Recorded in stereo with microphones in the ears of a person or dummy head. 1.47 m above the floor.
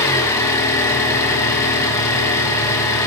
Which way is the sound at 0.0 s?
15° left (ahead or behind).